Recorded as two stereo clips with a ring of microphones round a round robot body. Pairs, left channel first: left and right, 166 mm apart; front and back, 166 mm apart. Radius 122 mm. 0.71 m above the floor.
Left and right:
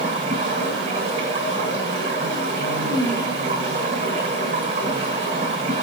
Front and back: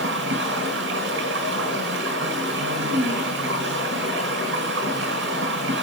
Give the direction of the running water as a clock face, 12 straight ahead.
5 o'clock.